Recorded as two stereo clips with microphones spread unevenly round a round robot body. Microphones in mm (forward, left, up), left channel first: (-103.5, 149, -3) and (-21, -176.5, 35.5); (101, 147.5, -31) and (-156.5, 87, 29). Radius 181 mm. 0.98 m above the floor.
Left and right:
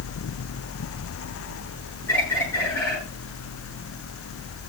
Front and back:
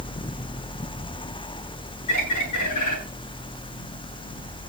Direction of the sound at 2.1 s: 20° left.